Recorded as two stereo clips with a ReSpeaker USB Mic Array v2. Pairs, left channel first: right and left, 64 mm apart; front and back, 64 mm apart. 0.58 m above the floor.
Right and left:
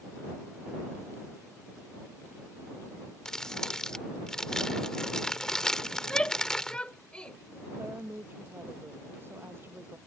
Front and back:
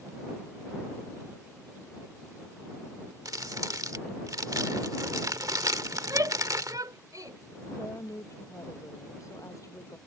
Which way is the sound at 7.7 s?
35° left.